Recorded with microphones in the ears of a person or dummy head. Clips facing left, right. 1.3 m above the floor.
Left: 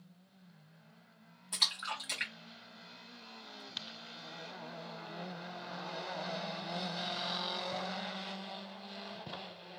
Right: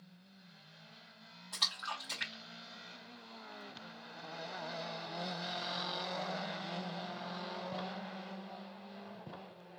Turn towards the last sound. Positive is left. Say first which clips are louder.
# left 2 dB
turn(degrees=30)  # may be behind; listen again after turning